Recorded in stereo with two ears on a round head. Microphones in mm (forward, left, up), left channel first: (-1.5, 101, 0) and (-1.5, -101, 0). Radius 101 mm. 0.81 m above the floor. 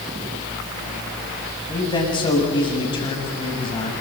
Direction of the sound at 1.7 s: 20° left (ahead or behind).